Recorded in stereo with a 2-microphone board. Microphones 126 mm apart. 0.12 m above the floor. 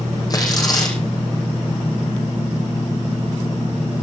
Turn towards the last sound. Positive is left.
turn(degrees=30)  # may be behind; listen again after turning